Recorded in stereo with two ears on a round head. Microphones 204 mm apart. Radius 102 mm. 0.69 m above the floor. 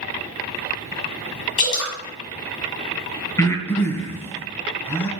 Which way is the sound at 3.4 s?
10° left (ahead or behind).